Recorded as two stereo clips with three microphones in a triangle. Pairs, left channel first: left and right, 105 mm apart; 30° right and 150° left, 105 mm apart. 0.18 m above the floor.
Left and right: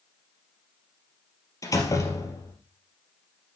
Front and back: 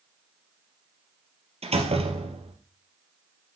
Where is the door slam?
145° left, 3 m.